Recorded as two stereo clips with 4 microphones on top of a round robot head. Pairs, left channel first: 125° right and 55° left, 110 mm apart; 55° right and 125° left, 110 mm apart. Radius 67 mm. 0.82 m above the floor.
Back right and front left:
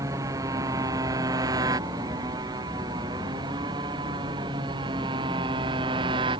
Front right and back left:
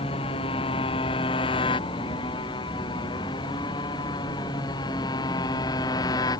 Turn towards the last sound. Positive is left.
turn(degrees=5)